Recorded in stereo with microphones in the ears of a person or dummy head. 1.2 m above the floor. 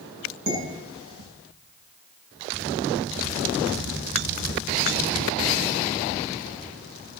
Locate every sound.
0.5 s dishes clattering: 70° right (ahead or behind), 8.5 m